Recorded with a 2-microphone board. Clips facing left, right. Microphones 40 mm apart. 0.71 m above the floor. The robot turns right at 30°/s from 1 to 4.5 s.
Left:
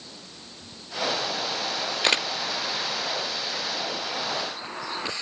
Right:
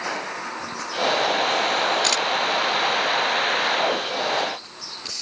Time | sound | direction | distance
0.0 | a vehicle | 80° right | ?
2.0 | a camera shutter | 20° left (ahead or behind) | ?